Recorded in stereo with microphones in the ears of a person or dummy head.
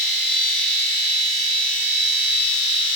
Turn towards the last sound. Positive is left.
turn(degrees=55)  # may be behind; listen again after turning